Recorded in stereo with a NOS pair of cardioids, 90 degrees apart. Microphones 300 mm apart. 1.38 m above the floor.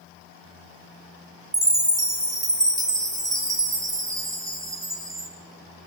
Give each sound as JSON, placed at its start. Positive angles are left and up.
{"t": 1.5, "sound": "a chime", "azimuth_deg": -10, "distance_m": 3.0}